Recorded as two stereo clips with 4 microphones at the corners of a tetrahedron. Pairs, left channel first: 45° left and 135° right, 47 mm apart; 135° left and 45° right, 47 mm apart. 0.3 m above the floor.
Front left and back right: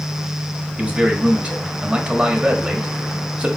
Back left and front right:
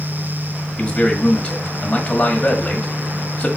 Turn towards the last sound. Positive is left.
turn(degrees=-175)